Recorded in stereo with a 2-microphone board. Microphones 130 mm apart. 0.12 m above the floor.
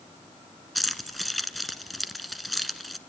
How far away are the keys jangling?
About 0.9 m.